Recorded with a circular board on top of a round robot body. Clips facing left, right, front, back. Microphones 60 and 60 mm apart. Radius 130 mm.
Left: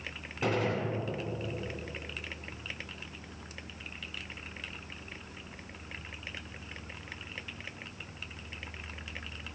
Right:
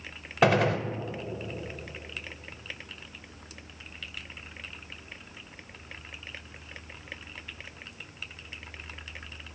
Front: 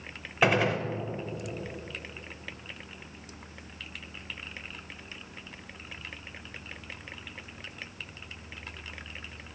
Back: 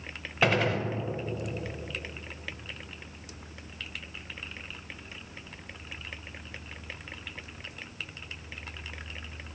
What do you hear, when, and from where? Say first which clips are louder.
0.4 s a gunshot: right 8 dB, front 1 dB; 80° right, 0.6 m